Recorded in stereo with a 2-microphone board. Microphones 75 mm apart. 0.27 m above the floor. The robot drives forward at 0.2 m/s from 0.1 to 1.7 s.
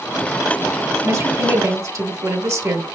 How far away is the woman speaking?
About 1.7 m.